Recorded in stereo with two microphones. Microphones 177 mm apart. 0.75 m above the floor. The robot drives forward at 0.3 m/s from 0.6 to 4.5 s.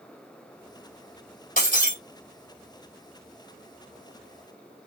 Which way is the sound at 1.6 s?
55° left (ahead or behind).